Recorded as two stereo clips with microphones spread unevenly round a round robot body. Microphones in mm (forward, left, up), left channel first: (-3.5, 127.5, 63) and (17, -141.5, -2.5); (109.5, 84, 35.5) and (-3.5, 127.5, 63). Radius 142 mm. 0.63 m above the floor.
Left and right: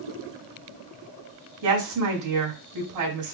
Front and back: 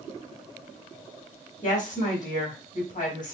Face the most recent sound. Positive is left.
turn(degrees=-85)